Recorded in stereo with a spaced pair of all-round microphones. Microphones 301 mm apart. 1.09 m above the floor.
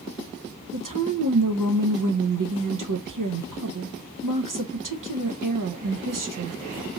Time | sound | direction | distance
0.7 | a woman speaking | 75° right (ahead or behind) | 0.6 m